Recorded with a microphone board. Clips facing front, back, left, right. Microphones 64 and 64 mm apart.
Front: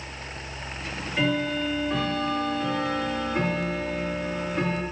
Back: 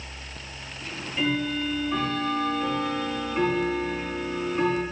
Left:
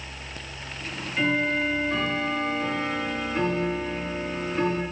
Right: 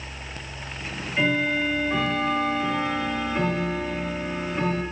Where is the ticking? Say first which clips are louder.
Front 2 dB, right 2 dB; 15° right, 5.5 m.